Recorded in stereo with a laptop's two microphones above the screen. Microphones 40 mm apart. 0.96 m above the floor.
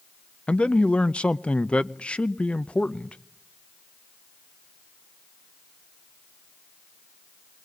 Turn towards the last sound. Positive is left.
turn(degrees=30)  # may be behind; listen again after turning